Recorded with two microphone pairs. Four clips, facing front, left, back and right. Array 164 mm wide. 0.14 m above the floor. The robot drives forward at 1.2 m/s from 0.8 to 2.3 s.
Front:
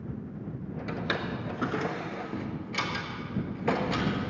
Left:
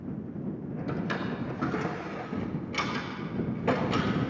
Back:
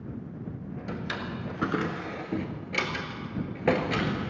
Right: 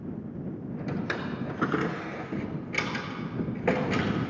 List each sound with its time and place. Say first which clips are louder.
0.9 s a drawer: even, front 3 dB; 30° right, 1.1 m; by 4.3 s 155° right, 1.2 m